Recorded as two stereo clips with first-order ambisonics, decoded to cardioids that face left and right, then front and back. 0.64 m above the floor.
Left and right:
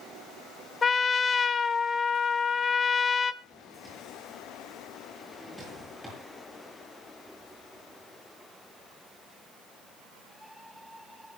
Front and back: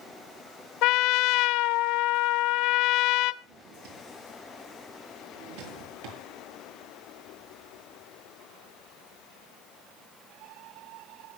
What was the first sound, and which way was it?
A trumpet, 20° left.